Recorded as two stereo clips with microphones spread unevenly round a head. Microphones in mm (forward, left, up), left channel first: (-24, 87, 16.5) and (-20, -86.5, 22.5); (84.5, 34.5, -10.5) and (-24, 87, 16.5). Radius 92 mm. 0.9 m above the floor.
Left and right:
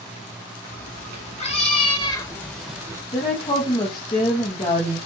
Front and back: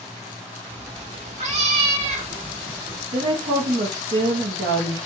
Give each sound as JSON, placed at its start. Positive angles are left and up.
{"t": 0.7, "sound": "a cat meowing", "azimuth_deg": 135, "distance_m": 2.0}
{"t": 3.1, "sound": "a woman speaking", "azimuth_deg": 150, "distance_m": 1.2}